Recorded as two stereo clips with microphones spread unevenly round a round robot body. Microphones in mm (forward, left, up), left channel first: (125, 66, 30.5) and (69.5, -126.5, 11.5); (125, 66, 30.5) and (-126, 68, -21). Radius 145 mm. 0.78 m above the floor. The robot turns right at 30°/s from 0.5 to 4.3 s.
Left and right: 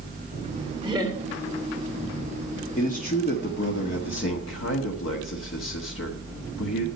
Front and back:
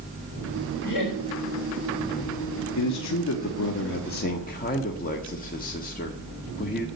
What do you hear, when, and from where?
0.8 s laughter: 30° right, 3 m; by 1.2 s 20° right, 3 m
2.8 s a man speaking: 15° left, 1.5 m; by 6.9 s 60° left, 1.5 m